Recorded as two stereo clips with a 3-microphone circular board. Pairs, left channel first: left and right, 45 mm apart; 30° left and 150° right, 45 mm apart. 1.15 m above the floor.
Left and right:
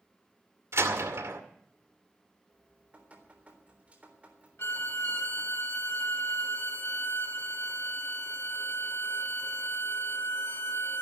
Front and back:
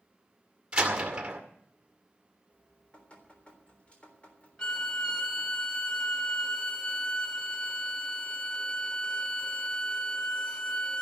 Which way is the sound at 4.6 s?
100° left.